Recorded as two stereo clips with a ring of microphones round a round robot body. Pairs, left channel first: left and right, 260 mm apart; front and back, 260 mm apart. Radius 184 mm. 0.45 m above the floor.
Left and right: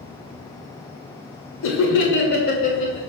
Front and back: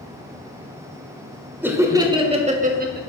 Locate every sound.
1.6 s laughter: 100° left, 1.7 m; by 3.0 s 150° left, 1.4 m